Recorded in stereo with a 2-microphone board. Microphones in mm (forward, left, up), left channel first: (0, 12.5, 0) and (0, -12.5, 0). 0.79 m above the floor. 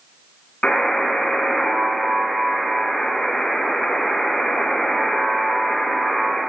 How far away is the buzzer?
About 2 m.